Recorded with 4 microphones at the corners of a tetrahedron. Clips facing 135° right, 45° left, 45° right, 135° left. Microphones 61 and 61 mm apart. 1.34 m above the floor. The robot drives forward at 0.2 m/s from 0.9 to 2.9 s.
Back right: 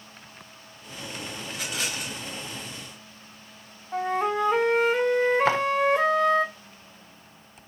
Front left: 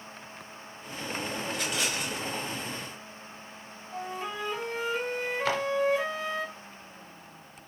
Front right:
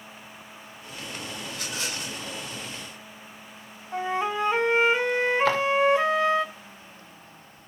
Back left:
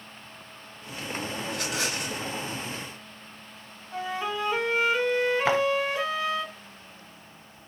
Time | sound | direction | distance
1.5 | a rattle | 135° left | 2.5 m
3.9 | a flute | 110° right | 0.9 m
5.5 | footsteps | 170° right | 1.6 m